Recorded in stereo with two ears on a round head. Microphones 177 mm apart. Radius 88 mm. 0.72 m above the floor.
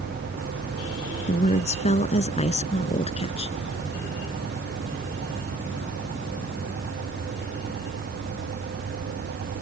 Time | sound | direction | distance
1.3 | a woman speaking | 35° left (ahead or behind) | ?